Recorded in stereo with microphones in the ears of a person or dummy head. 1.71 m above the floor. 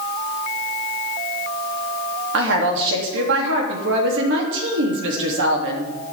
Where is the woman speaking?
65° right (ahead or behind), 3 m.